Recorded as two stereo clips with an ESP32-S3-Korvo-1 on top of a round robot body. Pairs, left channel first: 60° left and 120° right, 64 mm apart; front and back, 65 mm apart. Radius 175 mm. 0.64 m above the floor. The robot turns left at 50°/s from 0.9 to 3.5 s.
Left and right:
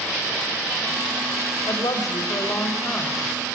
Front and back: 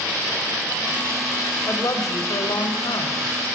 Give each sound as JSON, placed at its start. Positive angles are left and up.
{"t": 1.7, "sound": "a woman speaking", "azimuth_deg": 50, "distance_m": 4.5}